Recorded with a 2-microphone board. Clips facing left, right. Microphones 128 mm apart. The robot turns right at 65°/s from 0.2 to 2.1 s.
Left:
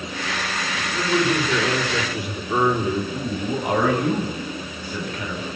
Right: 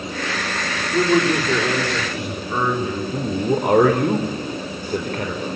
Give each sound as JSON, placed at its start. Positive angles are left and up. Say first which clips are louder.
{"t": 0.8, "sound": "a man speaking", "louder": "right 5 dB", "azimuth_deg": -70, "distance_m": 4.0}
{"t": 3.1, "sound": "a man speaking", "louder": "right 5 dB", "side_deg": -55, "distance_m": 4.0}